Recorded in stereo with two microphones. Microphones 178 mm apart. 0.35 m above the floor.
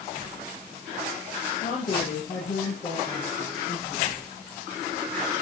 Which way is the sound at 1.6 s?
40° left (ahead or behind).